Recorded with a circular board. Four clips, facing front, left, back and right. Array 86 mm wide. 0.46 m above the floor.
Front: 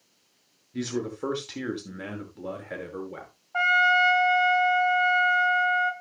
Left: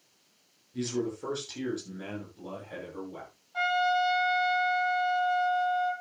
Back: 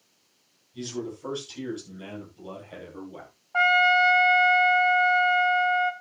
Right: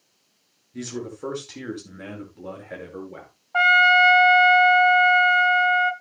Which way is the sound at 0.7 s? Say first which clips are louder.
Left 1 dB, front 4 dB; 15° right.